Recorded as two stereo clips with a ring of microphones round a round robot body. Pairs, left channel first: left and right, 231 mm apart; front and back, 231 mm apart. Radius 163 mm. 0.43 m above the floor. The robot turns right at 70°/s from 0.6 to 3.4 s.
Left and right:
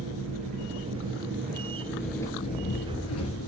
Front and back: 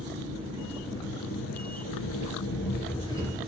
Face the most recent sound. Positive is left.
turn(degrees=95)